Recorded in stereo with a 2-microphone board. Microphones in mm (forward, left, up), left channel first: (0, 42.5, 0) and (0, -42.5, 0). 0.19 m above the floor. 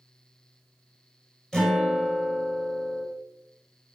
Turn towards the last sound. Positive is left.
turn(degrees=5)  # may be behind; listen again after turning